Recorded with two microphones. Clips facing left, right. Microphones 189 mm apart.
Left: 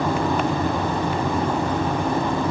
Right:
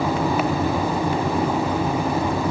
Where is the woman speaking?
No woman speaking in this recording.